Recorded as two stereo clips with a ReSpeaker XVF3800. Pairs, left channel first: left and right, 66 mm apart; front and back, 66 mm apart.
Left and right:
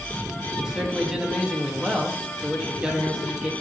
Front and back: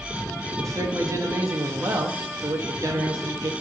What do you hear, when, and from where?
0.6 s a man speaking: 165° right, 1.1 m